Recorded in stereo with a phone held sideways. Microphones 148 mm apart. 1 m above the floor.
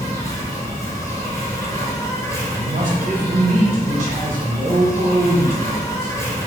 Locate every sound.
0.0 s an insect: 20° left (ahead or behind), 1.0 m
2.5 s a man speaking: 55° right (ahead or behind), 0.7 m